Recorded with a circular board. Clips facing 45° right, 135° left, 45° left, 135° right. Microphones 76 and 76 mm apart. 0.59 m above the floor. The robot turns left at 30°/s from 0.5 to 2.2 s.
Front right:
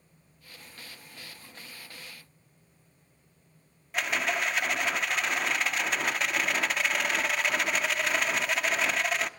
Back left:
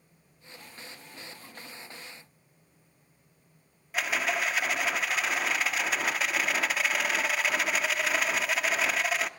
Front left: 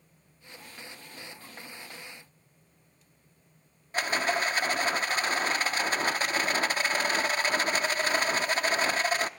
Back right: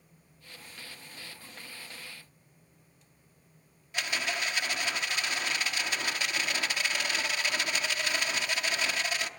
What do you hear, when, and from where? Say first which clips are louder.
3.9 s a rattle: even, front left 6 dB; 45° left, 0.8 m